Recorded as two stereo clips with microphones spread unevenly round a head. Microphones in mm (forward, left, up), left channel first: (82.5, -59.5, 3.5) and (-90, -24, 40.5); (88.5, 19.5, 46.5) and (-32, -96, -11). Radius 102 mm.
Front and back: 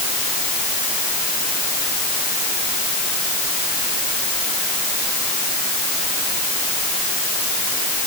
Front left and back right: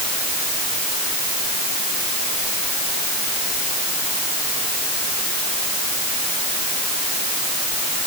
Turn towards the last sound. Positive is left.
No sound to turn to.